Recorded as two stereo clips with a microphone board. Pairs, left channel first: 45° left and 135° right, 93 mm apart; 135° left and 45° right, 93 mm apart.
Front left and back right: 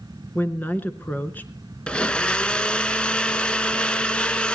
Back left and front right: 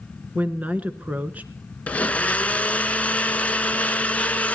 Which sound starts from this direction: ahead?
A woman speaking, at 0.3 s.